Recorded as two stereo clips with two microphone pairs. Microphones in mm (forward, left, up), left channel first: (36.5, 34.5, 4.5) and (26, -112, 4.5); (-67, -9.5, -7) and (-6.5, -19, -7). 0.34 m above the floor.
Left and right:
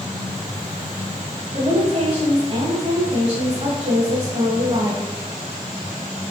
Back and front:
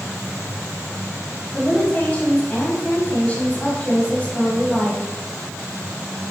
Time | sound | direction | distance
1.5 | a woman speaking | 130° right | 1.7 m